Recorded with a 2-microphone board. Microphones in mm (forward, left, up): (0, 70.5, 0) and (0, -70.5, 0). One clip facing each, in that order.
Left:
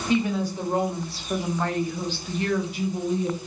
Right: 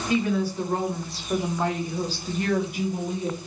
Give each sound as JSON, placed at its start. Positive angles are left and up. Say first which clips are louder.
{"t": 0.1, "sound": "a woman speaking", "louder": "even", "side_deg": 25, "distance_m": 1.2}